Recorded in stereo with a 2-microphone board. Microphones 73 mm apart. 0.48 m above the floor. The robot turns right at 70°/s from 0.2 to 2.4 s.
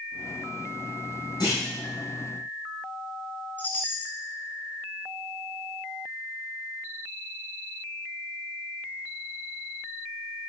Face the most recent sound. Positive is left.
turn(degrees=25)  # may be behind; listen again after turning